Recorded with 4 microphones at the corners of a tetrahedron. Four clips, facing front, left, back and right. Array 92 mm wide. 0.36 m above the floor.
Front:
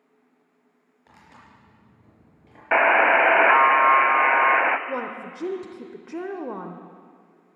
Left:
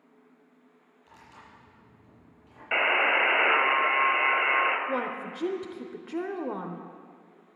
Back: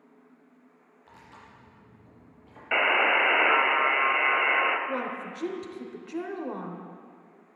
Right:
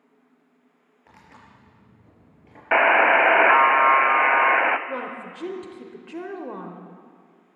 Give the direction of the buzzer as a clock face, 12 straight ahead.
2 o'clock.